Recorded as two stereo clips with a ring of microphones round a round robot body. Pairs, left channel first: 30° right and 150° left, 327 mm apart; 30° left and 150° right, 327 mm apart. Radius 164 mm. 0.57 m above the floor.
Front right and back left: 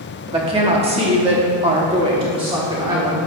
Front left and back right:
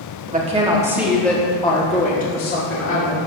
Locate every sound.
0.3 s a woman speaking: 160° right, 1.3 m; by 3.2 s 75° left, 2 m